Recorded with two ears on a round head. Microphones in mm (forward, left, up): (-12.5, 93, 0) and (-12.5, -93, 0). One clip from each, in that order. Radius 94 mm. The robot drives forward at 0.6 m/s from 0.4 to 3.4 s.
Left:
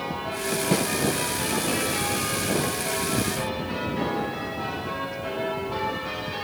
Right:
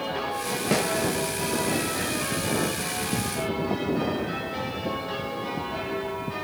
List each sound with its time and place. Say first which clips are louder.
0.7 s a snare drum: right 2 dB; 35° right (ahead or behind), 2 m